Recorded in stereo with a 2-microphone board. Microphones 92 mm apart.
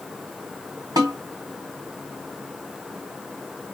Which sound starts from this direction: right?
A snare drum, at 1.0 s.